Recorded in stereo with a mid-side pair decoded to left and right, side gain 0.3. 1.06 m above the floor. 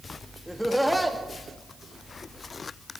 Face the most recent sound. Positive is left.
turn(degrees=-10)